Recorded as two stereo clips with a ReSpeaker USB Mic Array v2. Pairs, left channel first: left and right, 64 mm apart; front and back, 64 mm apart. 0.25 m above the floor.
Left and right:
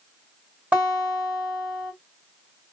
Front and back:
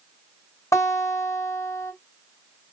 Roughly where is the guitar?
Ahead right.